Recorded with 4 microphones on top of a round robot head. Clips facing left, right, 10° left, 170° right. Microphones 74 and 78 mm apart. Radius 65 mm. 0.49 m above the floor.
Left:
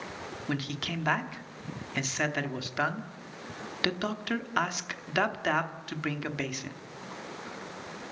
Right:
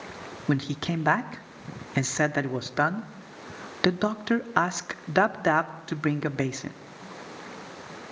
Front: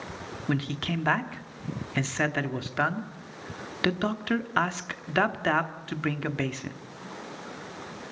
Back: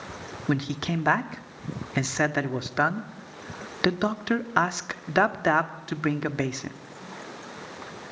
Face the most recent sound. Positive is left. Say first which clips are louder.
# right 8 dB, back 3 dB
turn(degrees=-115)